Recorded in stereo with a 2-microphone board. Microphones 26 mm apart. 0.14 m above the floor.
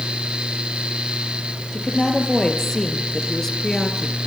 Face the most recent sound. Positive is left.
turn(degrees=15)  # may be behind; listen again after turning